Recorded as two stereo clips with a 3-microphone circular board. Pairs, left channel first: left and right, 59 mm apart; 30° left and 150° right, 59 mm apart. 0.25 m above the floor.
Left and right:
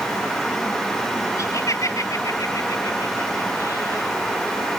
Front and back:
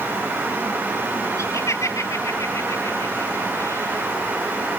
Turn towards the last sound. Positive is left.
turn(degrees=65)